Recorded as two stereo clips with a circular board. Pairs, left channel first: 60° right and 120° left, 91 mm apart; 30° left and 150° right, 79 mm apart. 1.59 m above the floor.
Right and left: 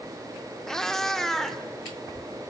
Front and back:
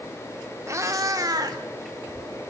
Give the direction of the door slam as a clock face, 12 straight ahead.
I don't hear a door slam.